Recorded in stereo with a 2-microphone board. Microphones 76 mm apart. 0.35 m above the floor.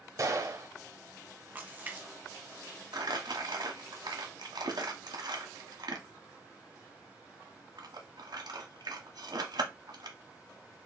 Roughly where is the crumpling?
Right.